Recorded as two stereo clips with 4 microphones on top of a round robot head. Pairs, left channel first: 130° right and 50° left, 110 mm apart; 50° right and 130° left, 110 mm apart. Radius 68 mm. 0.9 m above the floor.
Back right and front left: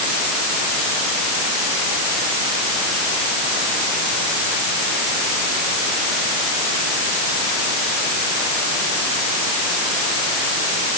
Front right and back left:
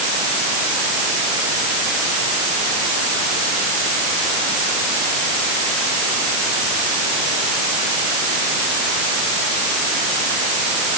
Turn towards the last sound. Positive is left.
No sound to turn to.